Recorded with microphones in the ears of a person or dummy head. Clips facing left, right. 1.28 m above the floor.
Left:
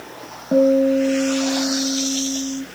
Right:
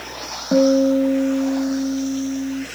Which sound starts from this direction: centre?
A guitar, at 0.5 s.